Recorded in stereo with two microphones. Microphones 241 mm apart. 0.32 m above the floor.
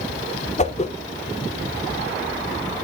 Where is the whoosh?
30° left (ahead or behind), 0.6 m.